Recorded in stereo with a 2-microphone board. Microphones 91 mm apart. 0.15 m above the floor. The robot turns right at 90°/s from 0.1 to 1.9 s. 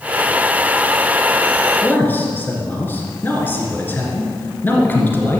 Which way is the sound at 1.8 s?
15° left (ahead or behind).